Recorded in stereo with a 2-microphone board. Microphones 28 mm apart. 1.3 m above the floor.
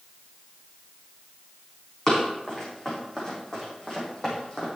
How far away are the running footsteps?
About 4.5 m.